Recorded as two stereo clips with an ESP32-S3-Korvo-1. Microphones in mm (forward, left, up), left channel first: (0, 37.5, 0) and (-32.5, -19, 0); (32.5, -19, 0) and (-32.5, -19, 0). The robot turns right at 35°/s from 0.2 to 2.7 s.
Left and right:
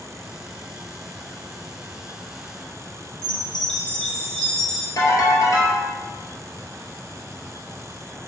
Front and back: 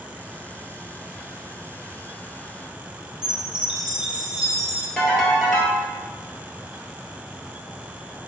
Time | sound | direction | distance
3.2 | a chime | 125° left | 1.0 m
5.0 | a ringtone | 85° left | 1.5 m